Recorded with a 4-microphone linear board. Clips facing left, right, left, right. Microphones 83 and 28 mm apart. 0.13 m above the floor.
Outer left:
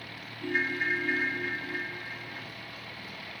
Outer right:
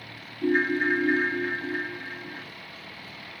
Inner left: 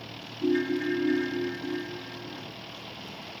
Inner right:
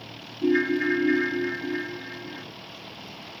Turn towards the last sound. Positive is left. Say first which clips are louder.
# outer right 7 dB, inner right 4 dB
turn(degrees=-40)  # may be behind; listen again after turning